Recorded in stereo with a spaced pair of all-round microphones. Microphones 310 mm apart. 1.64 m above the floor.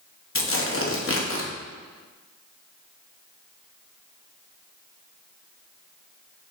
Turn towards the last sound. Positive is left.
turn(degrees=50)  # may be behind; listen again after turning